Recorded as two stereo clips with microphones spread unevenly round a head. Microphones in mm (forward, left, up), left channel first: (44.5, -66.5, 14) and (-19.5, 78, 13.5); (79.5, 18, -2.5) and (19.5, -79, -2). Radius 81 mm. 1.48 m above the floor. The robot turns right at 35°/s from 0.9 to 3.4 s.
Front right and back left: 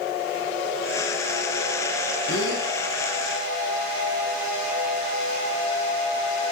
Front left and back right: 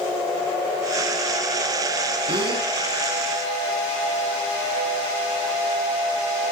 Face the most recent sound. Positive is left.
turn(degrees=-50)